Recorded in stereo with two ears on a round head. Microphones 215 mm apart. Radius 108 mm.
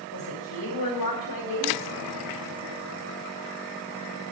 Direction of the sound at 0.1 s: 70° left (ahead or behind).